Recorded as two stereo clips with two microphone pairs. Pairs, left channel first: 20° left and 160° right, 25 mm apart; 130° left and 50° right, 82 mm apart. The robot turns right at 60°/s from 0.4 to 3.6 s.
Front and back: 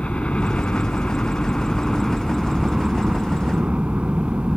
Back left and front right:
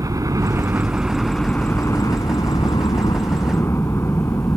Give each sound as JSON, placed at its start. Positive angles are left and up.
{"t": 0.0, "sound": "a helicopter", "azimuth_deg": -15}